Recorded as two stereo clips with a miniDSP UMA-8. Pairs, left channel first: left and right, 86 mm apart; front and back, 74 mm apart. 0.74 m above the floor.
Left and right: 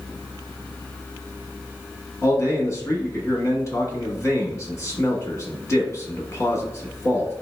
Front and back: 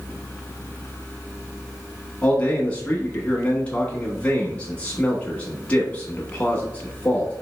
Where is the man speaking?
65° left, 1.1 m.